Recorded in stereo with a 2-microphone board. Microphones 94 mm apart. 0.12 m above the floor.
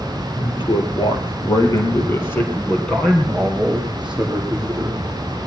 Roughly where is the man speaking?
Left.